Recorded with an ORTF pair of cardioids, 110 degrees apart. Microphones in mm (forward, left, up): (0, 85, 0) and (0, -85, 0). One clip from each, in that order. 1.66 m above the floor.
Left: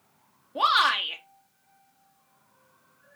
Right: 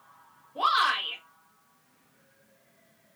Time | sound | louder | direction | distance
0.6 | a shout | left 3 dB | 60° left | 1.8 m